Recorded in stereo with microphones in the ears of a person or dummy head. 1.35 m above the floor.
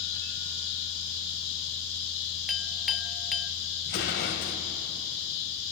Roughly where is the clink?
Centre.